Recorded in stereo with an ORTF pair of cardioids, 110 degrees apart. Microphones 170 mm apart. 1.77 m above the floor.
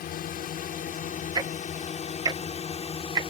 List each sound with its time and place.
0.0 s a drone: 60° left; by 3.3 s 35° left
1.4 s ticking: 25° right